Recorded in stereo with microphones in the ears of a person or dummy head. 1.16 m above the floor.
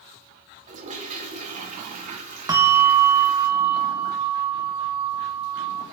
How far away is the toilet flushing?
About 1.3 m.